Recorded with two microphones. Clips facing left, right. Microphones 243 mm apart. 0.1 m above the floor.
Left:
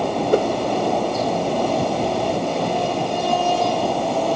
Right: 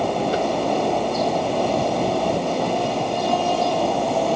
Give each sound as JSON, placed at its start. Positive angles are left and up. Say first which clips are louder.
{"t": 0.3, "sound": "a whoosh", "louder": "left 5 dB", "side_deg": 50}